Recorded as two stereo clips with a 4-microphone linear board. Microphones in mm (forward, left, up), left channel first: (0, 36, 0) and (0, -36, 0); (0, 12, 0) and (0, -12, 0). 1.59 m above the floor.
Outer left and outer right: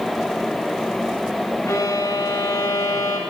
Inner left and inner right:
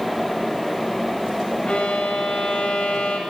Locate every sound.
1.7 s a violin: 40° left (ahead or behind), 8.5 m